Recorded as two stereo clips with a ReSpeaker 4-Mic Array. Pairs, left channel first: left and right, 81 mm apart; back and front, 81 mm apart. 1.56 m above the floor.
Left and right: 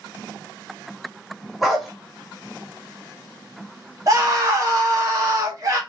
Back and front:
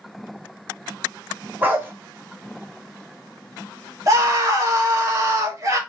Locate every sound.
1.6 s a dog barking: 5° right, 1.0 m
4.1 s a scream: 50° right, 1.0 m